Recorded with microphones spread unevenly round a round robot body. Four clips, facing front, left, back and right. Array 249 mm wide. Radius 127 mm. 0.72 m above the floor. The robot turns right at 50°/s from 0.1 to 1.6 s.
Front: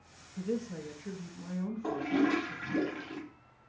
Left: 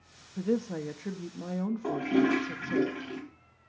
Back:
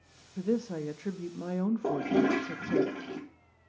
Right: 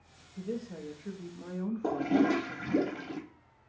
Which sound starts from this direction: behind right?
A toilet flushing, at 1.8 s.